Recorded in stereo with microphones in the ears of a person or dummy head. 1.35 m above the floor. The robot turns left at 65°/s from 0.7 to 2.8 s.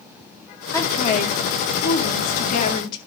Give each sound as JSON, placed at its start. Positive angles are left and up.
{"t": 0.7, "sound": "a woman speaking", "azimuth_deg": 165, "distance_m": 1.8}